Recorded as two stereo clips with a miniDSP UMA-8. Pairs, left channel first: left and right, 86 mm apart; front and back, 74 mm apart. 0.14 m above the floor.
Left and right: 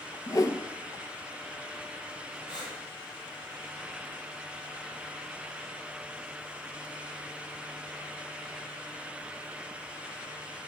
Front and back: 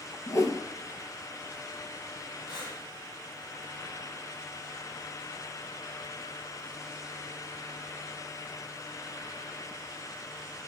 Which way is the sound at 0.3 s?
40° left.